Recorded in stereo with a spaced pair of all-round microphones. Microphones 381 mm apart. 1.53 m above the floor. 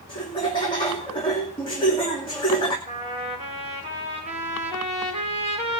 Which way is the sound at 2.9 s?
20° right (ahead or behind).